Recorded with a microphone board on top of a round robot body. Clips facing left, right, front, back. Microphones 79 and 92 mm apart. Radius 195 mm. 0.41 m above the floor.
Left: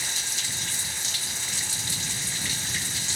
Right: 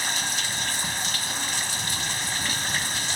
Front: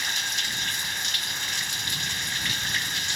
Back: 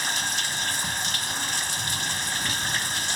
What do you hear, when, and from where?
0.0 s running water: 125° right